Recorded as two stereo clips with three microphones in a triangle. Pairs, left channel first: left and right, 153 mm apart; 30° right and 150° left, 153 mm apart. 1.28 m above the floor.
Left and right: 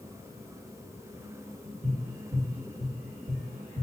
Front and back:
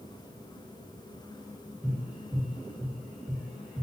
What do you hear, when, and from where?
1.8 s tapping: 130° right, 1.3 m